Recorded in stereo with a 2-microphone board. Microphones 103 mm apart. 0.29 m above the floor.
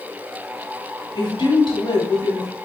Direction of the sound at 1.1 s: 50° left (ahead or behind).